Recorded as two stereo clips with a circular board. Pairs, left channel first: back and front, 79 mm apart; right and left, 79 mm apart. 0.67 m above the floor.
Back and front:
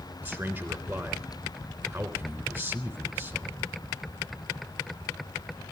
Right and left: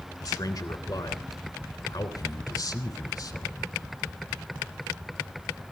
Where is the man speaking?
65° right, 3 m.